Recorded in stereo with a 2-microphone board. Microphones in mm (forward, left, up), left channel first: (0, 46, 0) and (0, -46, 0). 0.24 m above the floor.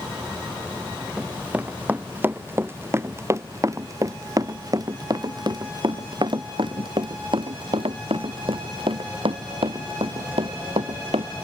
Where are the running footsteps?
15° right (ahead or behind); by 11.3 s 90° right.